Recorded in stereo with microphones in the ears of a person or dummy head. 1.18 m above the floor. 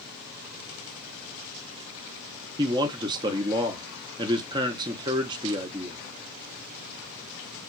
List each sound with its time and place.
2.6 s a man speaking: 20° right (ahead or behind), 0.5 m